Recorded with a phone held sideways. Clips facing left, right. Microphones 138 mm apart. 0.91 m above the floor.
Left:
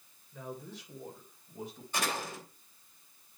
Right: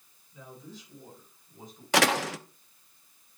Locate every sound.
0.3 s a man speaking: 60° left (ahead or behind), 3 m; by 1.8 s 70° left (ahead or behind), 4.5 m
1.9 s a door slam: 85° right, 0.6 m